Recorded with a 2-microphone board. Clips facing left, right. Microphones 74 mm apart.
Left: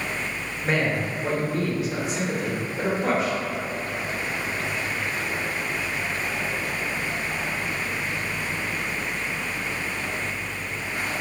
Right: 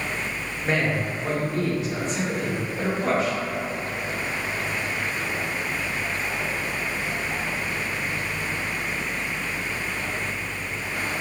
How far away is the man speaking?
About 0.6 m.